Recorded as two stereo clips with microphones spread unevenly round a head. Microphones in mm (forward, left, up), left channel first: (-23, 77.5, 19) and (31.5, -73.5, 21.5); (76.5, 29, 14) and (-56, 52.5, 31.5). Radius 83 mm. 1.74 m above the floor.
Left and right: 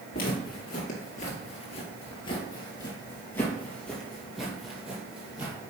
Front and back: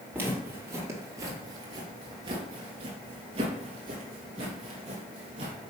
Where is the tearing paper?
No tearing paper in this recording.